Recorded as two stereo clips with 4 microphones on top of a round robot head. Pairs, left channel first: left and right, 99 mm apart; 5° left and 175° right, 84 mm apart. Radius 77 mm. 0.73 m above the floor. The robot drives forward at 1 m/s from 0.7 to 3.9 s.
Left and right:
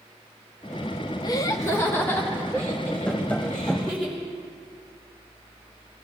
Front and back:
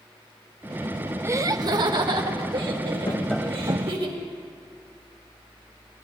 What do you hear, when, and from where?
1.2 s laughter: 130° left, 0.7 m; by 4.1 s 170° left, 3 m
3.1 s tapping: 20° left, 0.6 m; by 4.0 s 170° left, 0.7 m